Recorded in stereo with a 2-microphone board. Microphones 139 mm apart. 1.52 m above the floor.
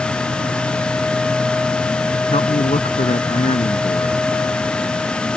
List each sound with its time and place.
2.3 s a man speaking: 50° left (ahead or behind)